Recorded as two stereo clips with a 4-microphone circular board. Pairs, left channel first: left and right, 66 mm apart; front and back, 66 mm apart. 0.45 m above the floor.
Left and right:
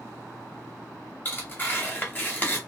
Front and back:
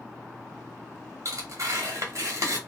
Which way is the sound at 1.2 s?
150° left.